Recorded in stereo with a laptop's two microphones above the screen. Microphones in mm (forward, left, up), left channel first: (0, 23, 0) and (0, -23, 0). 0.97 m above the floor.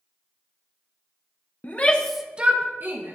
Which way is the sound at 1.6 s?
35° left (ahead or behind).